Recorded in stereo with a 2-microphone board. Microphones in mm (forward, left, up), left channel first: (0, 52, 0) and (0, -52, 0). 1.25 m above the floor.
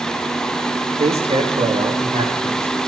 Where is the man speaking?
75° right (ahead or behind), 1.9 m; by 2.8 s 80° right, 4 m.